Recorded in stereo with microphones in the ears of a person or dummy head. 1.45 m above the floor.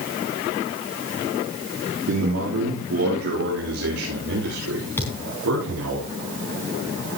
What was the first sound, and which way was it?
A man speaking, 85° right.